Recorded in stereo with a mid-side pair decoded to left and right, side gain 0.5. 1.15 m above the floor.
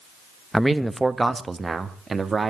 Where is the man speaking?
5° right, 1.2 m; by 2.5 s 30° right, 2 m.